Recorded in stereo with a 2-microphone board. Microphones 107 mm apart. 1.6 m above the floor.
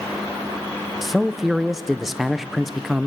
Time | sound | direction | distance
1.0 | a man speaking | 5° right (ahead or behind) | 0.6 m